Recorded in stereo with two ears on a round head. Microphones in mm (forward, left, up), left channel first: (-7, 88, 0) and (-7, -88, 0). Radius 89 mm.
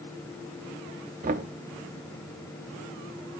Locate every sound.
1.2 s knocking: 40° right (ahead or behind), 0.8 m